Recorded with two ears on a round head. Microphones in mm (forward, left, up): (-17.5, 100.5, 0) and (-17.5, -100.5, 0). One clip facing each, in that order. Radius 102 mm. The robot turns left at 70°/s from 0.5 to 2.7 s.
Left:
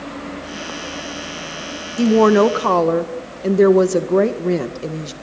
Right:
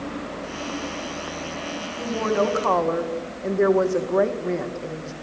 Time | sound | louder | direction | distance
2.0 | a woman speaking | left 11 dB | 95° left | 1.7 m